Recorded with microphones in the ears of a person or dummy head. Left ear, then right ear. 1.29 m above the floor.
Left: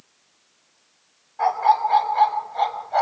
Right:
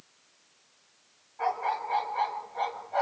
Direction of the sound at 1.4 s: 45° left (ahead or behind).